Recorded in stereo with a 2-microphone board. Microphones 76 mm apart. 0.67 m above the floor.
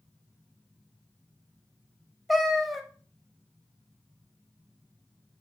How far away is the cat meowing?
About 0.6 m.